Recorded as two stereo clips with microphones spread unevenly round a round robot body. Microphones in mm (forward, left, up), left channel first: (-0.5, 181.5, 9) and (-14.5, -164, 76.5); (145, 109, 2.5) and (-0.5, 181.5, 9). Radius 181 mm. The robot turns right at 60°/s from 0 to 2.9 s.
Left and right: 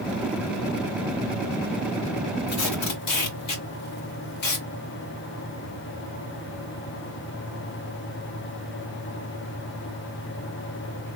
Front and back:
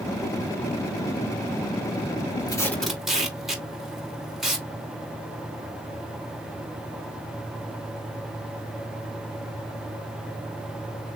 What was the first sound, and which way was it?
Tape being pulled, 40° left.